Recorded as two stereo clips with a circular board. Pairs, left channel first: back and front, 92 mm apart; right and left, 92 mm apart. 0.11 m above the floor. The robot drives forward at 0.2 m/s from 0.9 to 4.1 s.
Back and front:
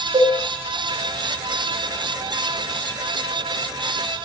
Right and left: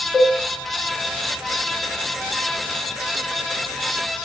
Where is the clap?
No clap in this recording.